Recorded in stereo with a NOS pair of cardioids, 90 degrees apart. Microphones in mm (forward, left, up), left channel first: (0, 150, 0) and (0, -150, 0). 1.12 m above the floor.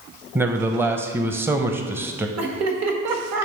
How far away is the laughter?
About 1.6 m.